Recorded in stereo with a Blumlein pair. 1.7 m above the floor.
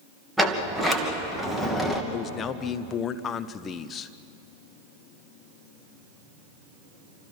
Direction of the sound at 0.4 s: 5° right.